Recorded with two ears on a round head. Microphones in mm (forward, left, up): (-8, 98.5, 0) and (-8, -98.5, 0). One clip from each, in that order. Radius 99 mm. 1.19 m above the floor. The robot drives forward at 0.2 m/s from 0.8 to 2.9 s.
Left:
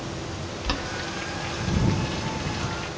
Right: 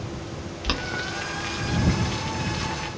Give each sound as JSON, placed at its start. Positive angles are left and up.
{"t": 0.6, "sound": "boiling", "side_deg": -10, "distance_m": 0.8}